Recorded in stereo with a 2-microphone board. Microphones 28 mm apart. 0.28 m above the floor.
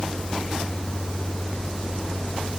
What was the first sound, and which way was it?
Only background noise.